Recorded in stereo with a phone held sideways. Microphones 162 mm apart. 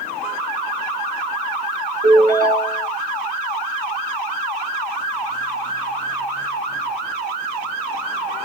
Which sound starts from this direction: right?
A ringtone, at 2.0 s.